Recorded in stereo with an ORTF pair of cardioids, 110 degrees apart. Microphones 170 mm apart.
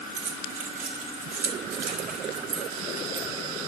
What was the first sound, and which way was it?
Keys jangling, 50° right.